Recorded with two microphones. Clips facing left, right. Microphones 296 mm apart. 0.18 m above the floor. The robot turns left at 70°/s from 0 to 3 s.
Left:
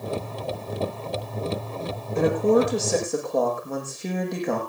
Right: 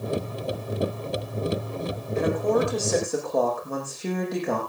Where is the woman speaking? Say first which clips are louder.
Left 4 dB; 60° left, 8 m; by 4.6 s straight ahead, 8 m.